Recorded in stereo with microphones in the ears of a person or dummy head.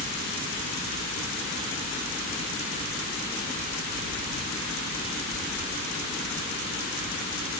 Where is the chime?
I don't hear a chime.